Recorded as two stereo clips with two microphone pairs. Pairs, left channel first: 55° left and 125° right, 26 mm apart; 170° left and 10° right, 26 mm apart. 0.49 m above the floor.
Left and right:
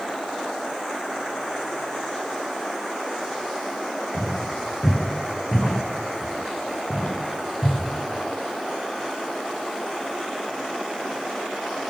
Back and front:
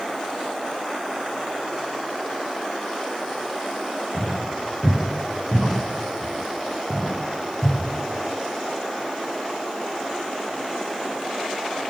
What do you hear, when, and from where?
4.1 s footsteps: 105° left, 8 m; by 7.8 s 90° left, 7 m